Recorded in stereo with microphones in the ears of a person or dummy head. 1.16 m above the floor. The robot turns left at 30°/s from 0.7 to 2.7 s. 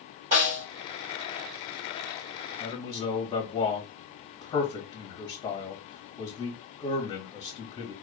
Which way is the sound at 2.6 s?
15° left (ahead or behind).